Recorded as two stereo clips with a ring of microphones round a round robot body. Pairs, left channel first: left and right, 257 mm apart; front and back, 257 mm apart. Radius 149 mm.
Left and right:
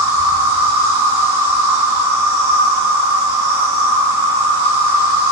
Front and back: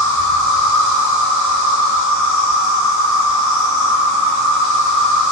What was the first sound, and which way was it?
An insect, 145° right.